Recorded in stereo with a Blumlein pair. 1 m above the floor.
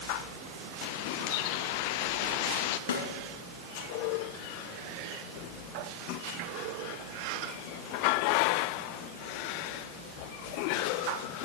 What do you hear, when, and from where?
0.8 s a bird: 45° left, 0.7 m
2.9 s a snare drum: 65° left, 4.5 m